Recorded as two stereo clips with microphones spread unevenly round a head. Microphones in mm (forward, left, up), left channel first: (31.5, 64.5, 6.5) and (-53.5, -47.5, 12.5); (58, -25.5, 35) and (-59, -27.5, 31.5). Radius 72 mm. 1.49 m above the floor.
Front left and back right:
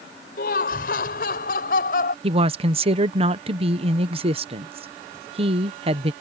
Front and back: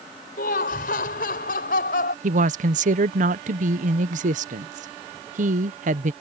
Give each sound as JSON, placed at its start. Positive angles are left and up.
{"t": 0.4, "sound": "laughter", "azimuth_deg": 20}
{"t": 2.2, "sound": "a woman speaking", "azimuth_deg": -175}